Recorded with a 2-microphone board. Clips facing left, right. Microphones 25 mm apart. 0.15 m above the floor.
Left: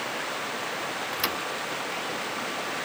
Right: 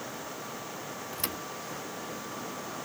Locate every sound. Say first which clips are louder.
0.0 s running water: left 8 dB; 80° left
1.1 s a thud: left 7 dB; 35° left (ahead or behind)